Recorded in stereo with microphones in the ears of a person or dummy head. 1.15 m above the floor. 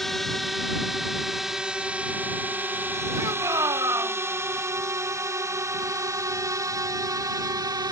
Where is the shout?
20° right (ahead or behind).